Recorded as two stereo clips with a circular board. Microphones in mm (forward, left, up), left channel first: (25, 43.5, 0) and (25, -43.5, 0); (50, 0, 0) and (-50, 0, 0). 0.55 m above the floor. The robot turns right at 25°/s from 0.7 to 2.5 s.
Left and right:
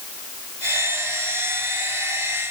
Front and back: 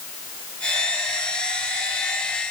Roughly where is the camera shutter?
I don't hear a camera shutter.